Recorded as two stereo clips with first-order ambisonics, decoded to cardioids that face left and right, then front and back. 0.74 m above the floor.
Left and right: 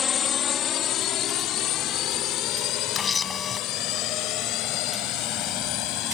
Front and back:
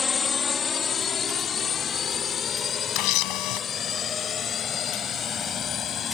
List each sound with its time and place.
0.0 s a drone: 55° left; by 6.2 s 60° left
3.0 s a camera shutter: 20° left